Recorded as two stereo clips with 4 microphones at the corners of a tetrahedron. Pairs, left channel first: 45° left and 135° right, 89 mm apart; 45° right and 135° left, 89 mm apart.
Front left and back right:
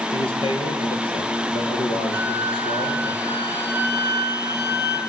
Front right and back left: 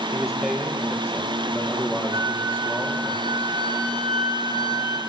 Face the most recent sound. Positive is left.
turn(degrees=95)